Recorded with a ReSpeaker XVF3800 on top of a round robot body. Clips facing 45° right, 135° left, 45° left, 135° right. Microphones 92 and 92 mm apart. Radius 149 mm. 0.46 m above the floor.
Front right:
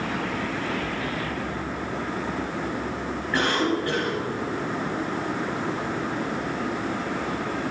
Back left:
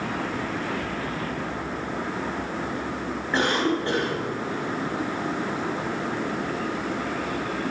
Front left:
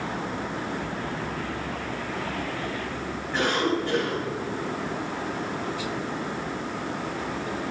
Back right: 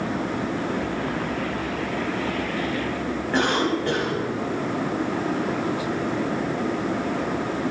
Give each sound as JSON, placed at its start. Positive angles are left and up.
{"t": 3.3, "sound": "a cough", "azimuth_deg": -160, "distance_m": 5.0}